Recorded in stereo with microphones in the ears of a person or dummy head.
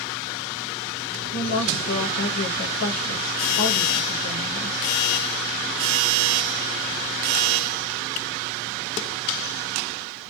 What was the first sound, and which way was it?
A woman speaking, 80° left.